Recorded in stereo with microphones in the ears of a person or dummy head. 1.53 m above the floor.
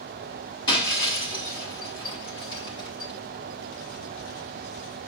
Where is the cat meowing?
No cat meowing in this recording.